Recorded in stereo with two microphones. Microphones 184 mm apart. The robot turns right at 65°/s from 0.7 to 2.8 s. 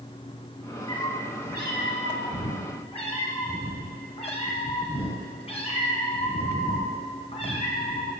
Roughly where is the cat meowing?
Ahead.